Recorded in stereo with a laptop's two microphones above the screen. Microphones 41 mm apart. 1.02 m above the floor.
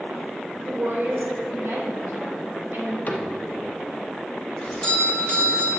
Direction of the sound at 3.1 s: 40° left (ahead or behind).